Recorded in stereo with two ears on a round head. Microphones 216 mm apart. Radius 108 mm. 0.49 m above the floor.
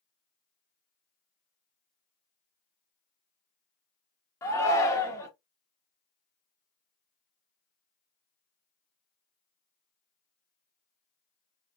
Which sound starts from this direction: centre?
A shout, at 4.4 s.